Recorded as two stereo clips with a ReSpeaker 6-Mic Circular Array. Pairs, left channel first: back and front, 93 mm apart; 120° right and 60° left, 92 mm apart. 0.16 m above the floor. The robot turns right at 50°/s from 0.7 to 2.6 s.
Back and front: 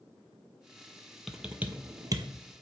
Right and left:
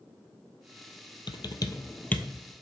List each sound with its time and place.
1.3 s typing on a keyboard: 90° right, 0.7 m; by 2.3 s 40° right, 0.7 m